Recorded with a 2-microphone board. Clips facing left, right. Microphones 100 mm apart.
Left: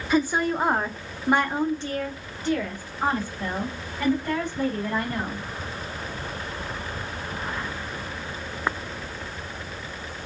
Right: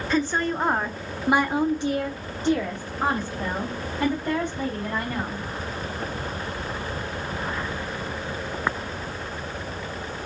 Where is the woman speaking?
10° left (ahead or behind), 1.0 m; by 5.4 s 25° right (ahead or behind), 3 m.